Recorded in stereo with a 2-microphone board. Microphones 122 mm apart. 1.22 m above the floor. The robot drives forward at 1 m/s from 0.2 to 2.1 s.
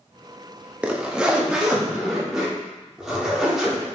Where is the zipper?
10° right (ahead or behind), 0.9 m; by 3.9 s 5° right (ahead or behind), 2 m.